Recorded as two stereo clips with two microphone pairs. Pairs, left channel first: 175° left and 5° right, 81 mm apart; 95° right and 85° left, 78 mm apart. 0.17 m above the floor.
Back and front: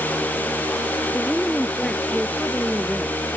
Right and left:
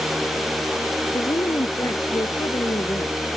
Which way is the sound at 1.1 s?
95° right.